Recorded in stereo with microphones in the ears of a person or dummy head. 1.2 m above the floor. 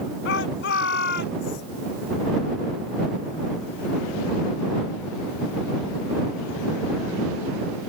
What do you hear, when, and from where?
0.2 s a shout: 70° left (ahead or behind); by 1.6 s 60° left (ahead or behind)